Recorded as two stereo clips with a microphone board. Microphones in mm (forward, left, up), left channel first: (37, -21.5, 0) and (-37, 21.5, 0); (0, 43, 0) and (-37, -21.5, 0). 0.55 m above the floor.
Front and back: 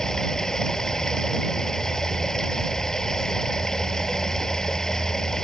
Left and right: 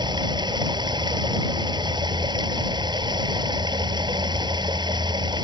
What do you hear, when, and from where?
0.0 s running water: 115° right